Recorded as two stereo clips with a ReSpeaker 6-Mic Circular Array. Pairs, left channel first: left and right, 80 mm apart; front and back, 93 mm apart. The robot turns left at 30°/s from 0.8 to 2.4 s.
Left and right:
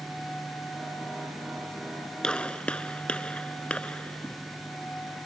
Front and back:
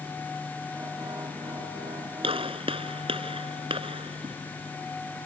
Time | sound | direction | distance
2.2 | a gunshot | 170° left | ?